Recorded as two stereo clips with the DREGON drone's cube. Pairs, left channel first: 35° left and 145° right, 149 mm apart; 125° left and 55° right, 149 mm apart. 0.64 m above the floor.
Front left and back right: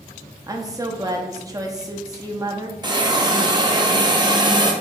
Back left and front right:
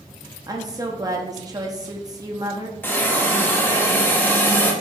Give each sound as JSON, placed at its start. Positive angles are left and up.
{"t": 0.5, "sound": "a woman speaking", "azimuth_deg": -100, "distance_m": 0.7}
{"t": 2.8, "sound": "a hiss", "azimuth_deg": -170, "distance_m": 0.7}